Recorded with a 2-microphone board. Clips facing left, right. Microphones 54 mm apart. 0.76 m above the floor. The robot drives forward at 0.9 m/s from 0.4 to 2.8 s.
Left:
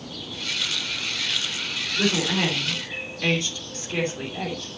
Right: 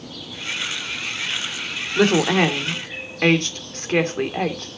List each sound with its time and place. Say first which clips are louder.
1.9 s a woman speaking: right 7 dB; 65° right (ahead or behind), 2.5 m; by 4.7 s 55° right (ahead or behind), 2.5 m